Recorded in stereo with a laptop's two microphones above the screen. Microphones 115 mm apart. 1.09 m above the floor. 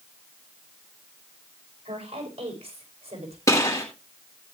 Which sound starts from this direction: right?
A woman speaking, at 1.9 s.